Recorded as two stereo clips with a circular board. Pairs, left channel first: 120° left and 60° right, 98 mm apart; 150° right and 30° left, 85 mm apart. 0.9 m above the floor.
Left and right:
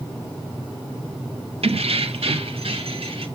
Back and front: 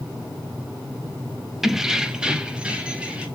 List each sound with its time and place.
1.6 s keys jangling: 55° right, 0.5 m; by 3.3 s 45° right, 1.4 m